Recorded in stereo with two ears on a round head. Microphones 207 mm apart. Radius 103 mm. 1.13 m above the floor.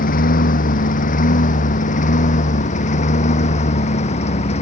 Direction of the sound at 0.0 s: 40° left (ahead or behind).